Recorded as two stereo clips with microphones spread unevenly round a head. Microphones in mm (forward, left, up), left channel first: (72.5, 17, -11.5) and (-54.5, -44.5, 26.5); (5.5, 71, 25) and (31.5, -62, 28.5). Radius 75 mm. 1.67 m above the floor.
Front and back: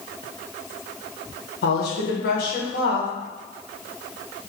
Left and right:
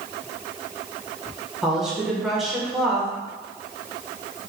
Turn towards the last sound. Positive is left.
turn(degrees=5)